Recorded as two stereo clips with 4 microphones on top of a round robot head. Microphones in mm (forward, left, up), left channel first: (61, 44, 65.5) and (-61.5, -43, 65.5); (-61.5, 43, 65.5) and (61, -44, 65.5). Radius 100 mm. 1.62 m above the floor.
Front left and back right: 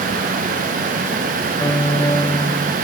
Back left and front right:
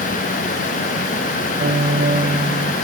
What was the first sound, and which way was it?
A piano, 40° right.